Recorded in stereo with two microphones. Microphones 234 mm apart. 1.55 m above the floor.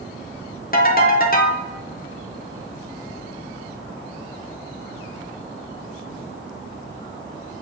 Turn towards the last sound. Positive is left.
turn(degrees=40)  # may be behind; listen again after turning